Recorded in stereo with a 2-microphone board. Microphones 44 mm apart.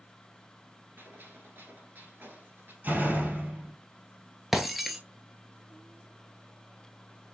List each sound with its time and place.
1.0 s a gunshot: 45° right (ahead or behind), 1.8 m
2.8 s a door slam: 45° right (ahead or behind), 2.0 m
4.5 s breaking glass: 5° right (ahead or behind), 0.6 m